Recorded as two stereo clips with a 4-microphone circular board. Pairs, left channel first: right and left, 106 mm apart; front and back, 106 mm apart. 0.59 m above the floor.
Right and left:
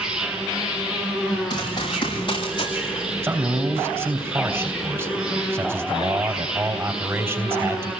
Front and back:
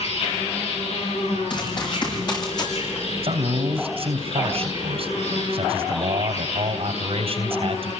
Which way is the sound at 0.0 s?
5° left.